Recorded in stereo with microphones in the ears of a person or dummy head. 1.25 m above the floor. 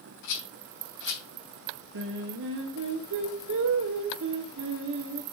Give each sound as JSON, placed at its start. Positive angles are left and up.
{"t": 0.2, "sound": "a rattle", "side_deg": 70, "distance_m": 3.0}
{"t": 1.9, "sound": "singing", "side_deg": -75, "distance_m": 0.9}